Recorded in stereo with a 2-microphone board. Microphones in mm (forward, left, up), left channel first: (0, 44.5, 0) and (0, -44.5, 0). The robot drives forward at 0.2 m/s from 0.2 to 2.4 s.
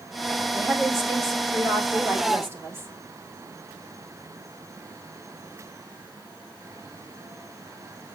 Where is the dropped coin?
No dropped coin in this recording.